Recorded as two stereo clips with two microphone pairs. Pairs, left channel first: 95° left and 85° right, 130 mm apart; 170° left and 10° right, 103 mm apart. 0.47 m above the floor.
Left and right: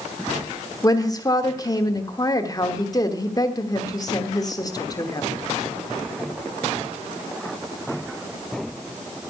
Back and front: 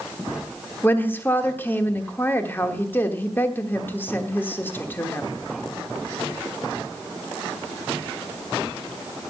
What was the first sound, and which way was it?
A woman speaking, 115° left.